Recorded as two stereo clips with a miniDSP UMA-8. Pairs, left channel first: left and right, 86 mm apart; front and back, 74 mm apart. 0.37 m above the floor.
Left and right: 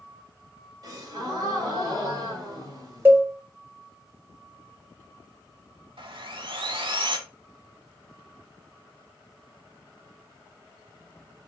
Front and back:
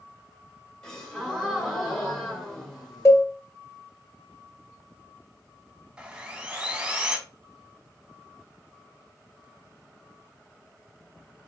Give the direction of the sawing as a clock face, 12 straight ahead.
4 o'clock.